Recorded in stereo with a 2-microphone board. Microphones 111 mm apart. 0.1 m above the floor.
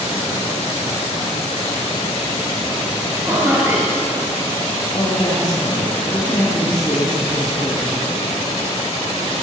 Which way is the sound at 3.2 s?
25° right (ahead or behind).